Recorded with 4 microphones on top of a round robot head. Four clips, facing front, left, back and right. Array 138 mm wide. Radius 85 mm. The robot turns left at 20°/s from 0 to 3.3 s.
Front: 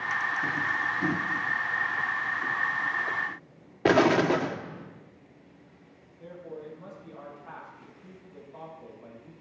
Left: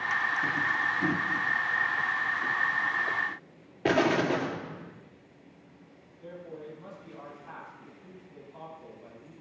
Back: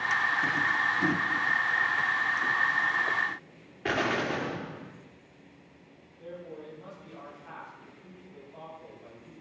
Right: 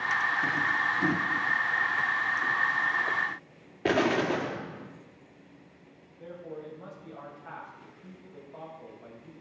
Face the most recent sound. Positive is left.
turn(degrees=-80)